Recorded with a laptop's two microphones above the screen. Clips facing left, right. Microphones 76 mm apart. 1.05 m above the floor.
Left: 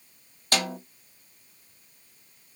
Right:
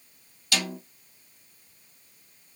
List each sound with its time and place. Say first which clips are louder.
0.5 s a snare drum: left 3 dB; 45° left (ahead or behind), 1.1 m